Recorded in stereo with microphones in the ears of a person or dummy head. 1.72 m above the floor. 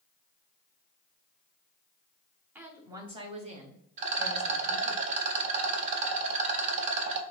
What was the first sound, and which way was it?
A woman speaking, 10° right (ahead or behind).